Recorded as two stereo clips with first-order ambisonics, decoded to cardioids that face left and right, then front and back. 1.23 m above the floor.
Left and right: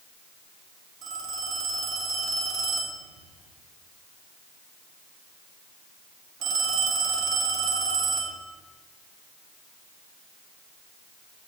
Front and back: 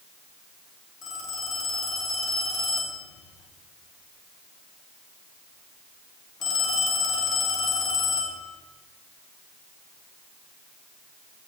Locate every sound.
1.0 s a phone ringing: 50° right, 1.5 m